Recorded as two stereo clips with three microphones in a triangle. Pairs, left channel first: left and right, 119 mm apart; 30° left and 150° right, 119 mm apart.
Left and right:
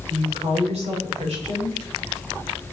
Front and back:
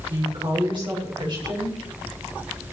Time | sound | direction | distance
0.1 | a woman speaking | 110° right | 7 m